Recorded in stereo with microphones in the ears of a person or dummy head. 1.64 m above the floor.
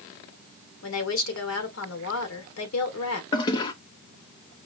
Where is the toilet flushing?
30° left (ahead or behind), 0.7 m.